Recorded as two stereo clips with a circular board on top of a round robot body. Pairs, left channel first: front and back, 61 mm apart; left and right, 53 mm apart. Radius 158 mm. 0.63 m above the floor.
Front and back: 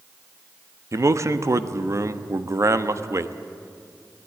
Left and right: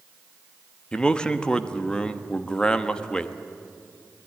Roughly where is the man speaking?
Behind.